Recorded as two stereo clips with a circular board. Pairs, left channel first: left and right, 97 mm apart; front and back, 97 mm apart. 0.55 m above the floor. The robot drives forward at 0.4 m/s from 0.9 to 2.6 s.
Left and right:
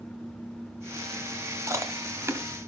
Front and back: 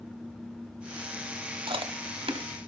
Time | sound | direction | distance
1.7 | chewing | 145° right | 1.1 m